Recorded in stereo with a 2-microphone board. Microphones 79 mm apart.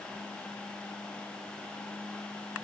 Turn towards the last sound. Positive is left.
No sound to turn to.